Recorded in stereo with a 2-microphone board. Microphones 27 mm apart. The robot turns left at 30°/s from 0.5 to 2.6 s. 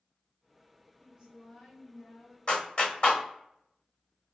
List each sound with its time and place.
1.0 s a woman speaking: 165° right, 1.9 m; by 2.4 s 155° left, 1.9 m
2.5 s a clap: 40° left (ahead or behind), 1.2 m